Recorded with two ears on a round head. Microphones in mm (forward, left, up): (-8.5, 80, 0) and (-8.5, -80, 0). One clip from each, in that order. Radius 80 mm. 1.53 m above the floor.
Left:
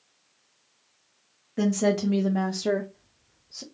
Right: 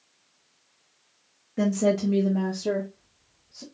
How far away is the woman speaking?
About 1.1 m.